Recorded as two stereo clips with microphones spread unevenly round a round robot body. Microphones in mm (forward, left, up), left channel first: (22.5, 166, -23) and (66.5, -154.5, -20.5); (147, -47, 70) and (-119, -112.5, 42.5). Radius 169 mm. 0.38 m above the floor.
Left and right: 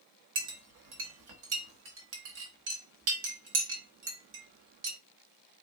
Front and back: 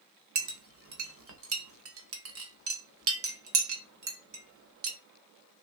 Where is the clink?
135° right, 0.9 m.